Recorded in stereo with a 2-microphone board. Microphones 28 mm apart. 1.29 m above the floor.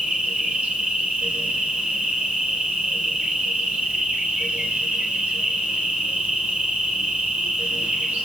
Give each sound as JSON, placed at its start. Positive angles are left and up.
{"t": 0.0, "sound": "an insect", "side_deg": -80, "distance_m": 1.9}